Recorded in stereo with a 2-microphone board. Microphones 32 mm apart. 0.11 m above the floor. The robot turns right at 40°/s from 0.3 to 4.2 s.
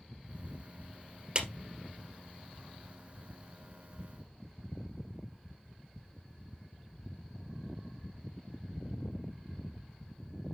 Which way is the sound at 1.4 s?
35° right (ahead or behind).